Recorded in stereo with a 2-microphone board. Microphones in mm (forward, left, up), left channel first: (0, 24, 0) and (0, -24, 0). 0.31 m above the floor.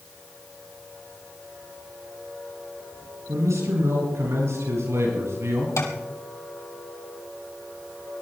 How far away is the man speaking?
About 9 m.